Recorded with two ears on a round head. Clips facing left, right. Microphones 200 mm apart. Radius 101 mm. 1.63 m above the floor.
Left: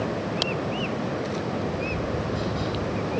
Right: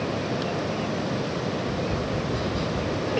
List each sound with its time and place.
1.6 s tapping: 65° right (ahead or behind), 4.5 m